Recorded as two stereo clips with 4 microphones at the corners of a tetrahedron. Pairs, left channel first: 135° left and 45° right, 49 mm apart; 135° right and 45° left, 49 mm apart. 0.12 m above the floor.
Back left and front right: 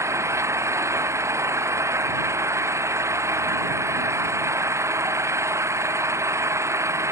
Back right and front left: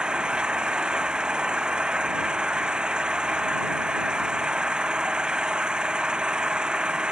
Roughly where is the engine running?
Ahead right.